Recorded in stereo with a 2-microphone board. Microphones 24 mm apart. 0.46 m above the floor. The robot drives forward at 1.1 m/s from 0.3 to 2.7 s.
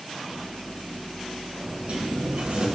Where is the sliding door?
50° right (ahead or behind), 1.2 m; by 2.7 s 60° right (ahead or behind), 1.0 m.